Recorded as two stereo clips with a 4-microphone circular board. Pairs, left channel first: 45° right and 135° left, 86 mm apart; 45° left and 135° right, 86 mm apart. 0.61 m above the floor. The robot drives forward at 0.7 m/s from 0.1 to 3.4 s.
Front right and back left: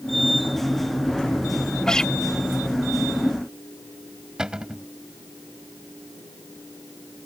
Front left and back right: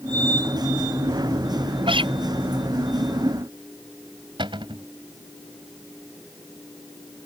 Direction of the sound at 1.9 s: 125° right.